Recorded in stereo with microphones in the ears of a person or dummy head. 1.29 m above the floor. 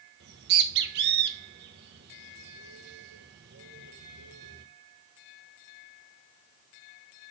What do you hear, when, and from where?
0.2 s a bird: 60° right (ahead or behind), 1.3 m